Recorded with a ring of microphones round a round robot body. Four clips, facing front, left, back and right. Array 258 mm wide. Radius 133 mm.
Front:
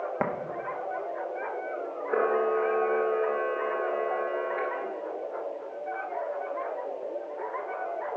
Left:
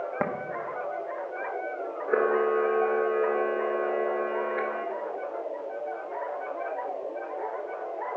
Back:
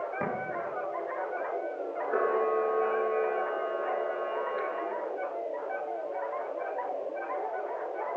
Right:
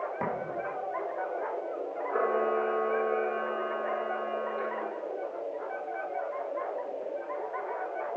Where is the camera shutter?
75° left, 2.5 m.